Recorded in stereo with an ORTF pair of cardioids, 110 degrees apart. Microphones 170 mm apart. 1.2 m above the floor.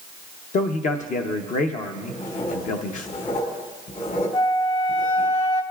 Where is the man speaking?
55° left, 0.8 m.